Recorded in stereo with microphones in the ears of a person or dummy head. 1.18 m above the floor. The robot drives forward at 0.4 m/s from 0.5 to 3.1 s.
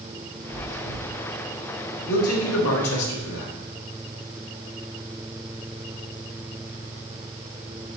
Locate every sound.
0.5 s chewing: 60° left (ahead or behind), 2.0 m; by 1.0 s 55° left (ahead or behind), 2 m
2.1 s a man speaking: 80° left, 3 m